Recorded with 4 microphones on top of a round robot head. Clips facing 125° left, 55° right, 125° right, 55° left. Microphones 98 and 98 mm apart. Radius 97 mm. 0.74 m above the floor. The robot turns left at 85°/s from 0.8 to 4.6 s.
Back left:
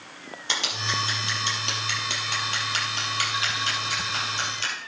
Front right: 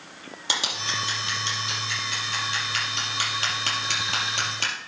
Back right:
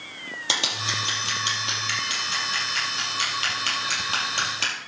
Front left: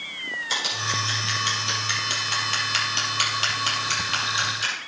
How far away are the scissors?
About 4.5 m.